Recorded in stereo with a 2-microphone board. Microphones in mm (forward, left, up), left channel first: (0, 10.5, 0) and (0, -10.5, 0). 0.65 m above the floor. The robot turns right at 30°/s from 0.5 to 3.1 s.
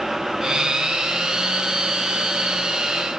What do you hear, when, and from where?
Only background noise.